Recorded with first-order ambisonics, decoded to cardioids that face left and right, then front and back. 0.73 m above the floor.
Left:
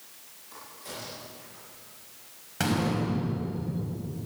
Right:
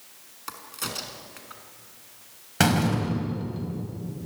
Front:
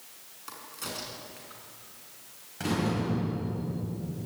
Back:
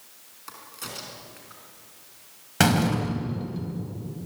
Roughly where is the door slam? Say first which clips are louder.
Right 5 dB, back 8 dB; behind right.